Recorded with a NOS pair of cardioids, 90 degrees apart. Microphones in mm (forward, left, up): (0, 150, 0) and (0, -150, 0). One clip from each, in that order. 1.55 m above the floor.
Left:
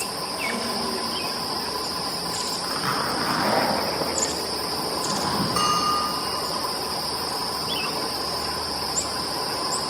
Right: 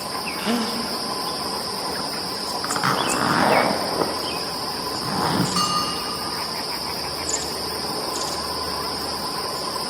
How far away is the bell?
About 3.5 m.